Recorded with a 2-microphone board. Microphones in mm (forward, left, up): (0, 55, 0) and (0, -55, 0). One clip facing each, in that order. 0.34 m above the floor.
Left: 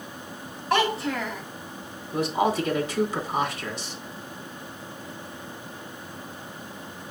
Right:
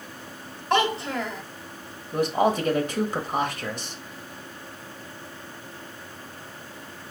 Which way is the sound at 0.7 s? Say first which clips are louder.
Even; 25° right (ahead or behind).